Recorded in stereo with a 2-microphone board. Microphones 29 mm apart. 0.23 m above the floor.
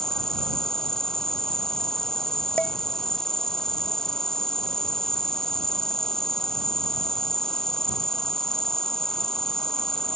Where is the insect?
15° left (ahead or behind).